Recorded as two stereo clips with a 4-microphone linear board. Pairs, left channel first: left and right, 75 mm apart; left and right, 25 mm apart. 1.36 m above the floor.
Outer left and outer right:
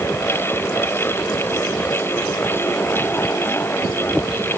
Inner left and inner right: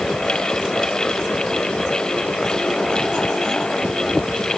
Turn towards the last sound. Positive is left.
No sound to turn to.